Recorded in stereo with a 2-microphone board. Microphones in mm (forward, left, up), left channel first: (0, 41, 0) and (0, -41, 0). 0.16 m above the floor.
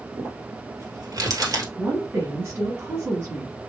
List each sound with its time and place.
0.2 s crumpling: 45° right (ahead or behind), 1.6 m
1.8 s a woman speaking: 25° right (ahead or behind), 1.8 m